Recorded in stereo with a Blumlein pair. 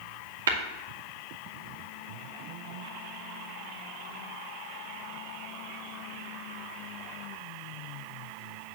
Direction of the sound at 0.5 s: 65° right.